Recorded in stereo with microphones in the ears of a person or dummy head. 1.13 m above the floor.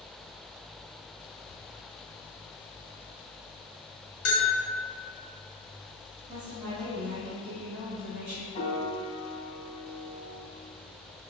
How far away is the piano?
About 1.0 m.